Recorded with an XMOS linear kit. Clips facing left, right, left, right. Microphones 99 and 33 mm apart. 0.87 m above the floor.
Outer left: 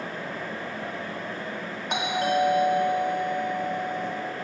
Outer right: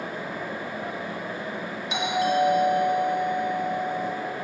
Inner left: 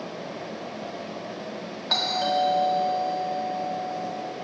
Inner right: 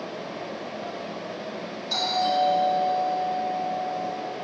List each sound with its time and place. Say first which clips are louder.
1.9 s a doorbell: outer right 1 dB, even; 50° left (ahead or behind), 2.5 m